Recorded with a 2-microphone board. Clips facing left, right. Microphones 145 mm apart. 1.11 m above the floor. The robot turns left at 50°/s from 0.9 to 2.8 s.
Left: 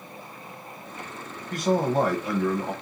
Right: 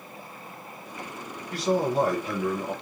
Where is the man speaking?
115° left, 1.2 m; by 2.7 s 55° left, 1.2 m.